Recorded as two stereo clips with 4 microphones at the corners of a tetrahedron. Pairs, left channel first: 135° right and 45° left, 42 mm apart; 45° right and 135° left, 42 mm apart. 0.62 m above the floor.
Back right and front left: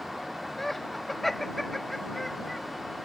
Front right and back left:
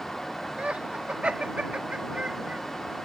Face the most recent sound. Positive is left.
turn(degrees=140)